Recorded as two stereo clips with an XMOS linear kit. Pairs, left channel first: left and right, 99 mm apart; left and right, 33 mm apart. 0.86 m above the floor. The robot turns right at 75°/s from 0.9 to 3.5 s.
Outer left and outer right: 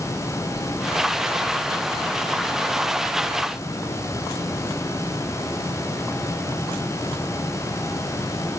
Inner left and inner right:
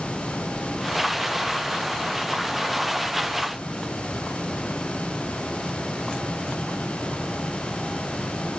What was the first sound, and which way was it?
Only background noise.